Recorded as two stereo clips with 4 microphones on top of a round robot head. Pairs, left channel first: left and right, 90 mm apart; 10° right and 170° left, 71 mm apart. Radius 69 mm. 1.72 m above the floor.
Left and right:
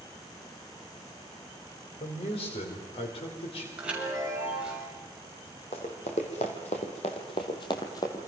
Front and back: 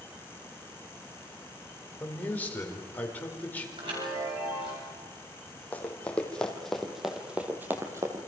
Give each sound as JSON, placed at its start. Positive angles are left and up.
{"t": 2.0, "sound": "a man speaking", "azimuth_deg": 55, "distance_m": 5.5}
{"t": 3.8, "sound": "a chime", "azimuth_deg": -170, "distance_m": 7.5}
{"t": 5.7, "sound": "running footsteps", "azimuth_deg": 55, "distance_m": 3.5}